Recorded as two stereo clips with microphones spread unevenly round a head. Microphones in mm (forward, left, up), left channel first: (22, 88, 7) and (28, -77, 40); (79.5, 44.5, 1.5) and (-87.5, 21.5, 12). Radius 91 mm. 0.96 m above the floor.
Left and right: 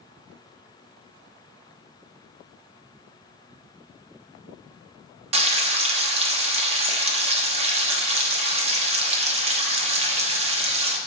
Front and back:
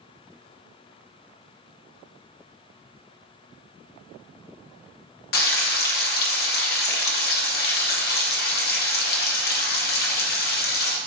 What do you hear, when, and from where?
5.3 s frying: 35° right, 1.0 m